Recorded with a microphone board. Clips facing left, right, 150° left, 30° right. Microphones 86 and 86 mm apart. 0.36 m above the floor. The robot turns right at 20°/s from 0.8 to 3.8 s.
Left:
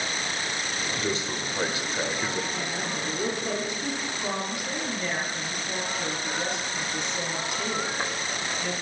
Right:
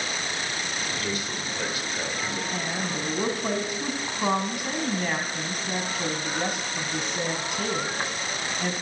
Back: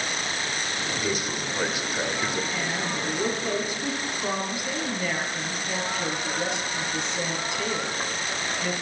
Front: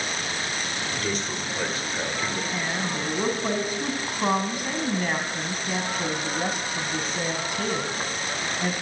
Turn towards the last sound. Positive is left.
turn(degrees=-65)